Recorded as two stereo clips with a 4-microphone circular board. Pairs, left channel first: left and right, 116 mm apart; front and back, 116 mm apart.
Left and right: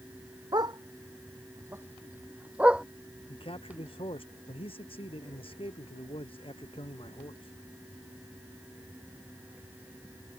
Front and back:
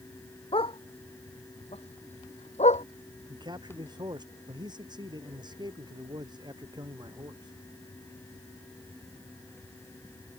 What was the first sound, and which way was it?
A dog barking, 35° right.